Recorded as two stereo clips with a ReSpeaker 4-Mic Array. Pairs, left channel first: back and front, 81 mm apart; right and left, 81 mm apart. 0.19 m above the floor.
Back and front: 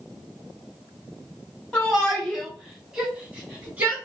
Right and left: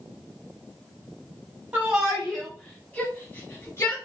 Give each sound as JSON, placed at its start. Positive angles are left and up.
{"t": 1.7, "sound": "a shout", "azimuth_deg": 125, "distance_m": 1.0}